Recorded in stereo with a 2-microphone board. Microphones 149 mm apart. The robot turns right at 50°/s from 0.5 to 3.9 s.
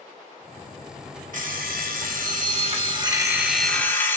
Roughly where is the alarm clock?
Behind right.